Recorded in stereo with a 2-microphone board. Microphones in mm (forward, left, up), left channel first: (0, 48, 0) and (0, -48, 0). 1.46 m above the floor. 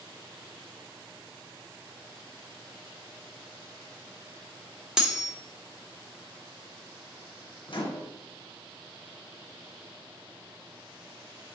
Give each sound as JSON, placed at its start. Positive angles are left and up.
{"t": 5.0, "sound": "cutlery clinking", "side_deg": -5, "distance_m": 0.6}
{"t": 7.7, "sound": "a microwave", "side_deg": 60, "distance_m": 0.8}